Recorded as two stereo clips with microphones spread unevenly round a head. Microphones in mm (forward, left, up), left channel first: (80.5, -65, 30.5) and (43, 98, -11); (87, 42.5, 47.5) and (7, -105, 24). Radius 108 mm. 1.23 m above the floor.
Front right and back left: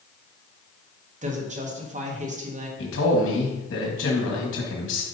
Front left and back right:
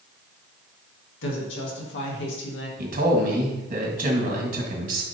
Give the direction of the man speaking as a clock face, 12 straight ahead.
3 o'clock.